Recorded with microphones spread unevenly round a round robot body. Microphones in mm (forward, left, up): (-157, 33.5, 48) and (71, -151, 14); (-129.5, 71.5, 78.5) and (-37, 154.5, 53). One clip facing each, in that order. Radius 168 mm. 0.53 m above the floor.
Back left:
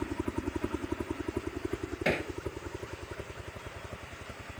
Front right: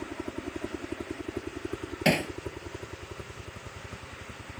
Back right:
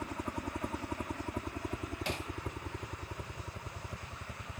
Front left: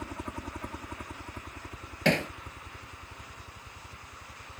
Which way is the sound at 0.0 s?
130° left.